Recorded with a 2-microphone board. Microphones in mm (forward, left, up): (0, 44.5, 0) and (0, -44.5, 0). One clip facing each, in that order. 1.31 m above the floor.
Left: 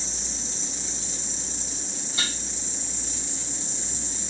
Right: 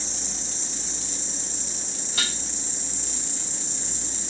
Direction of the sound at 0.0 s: 75° right (ahead or behind).